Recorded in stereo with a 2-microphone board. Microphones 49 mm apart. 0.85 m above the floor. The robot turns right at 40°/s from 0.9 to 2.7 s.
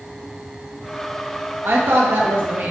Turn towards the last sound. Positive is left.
turn(degrees=-50)